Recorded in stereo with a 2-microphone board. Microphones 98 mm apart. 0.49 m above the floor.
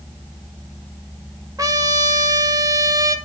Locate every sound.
1.6 s a trumpet: 35° right (ahead or behind), 1.0 m